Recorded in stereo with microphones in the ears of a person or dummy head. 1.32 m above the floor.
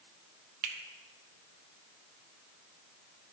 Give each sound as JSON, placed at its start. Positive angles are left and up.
{"t": 0.6, "sound": "a finger snap", "side_deg": -40, "distance_m": 0.9}